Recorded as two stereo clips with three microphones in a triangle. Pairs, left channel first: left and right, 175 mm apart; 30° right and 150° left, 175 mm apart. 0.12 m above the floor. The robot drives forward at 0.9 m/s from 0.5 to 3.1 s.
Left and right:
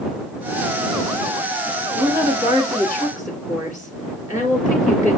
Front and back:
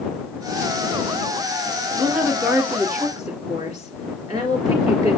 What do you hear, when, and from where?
1.9 s a woman speaking: 120° right, 1.8 m; by 5.2 s 155° right, 2.5 m